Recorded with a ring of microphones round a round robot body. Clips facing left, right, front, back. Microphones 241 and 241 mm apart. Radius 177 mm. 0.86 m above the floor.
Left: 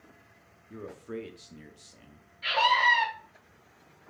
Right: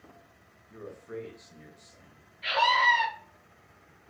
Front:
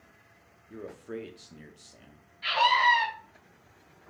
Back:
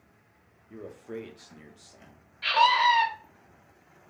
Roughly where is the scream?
Behind.